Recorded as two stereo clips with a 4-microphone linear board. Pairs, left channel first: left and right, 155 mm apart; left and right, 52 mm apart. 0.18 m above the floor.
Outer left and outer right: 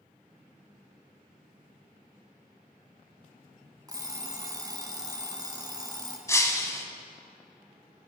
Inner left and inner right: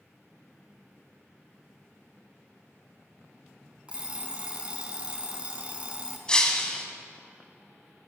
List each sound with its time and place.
3.9 s an alarm clock: 25° right (ahead or behind), 0.9 m
6.3 s breaking glass: 20° left (ahead or behind), 0.8 m